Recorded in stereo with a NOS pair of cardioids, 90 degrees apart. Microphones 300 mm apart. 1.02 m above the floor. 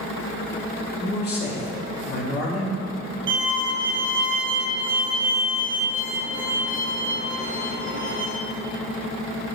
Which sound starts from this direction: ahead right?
A violin, at 3.3 s.